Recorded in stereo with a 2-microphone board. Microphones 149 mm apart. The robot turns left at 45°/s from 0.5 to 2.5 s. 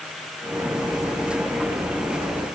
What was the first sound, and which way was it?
Only background noise.